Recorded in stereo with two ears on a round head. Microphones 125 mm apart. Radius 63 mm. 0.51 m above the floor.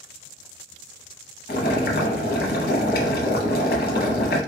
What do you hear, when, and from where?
1.5 s boiling: 70° left (ahead or behind), 0.9 m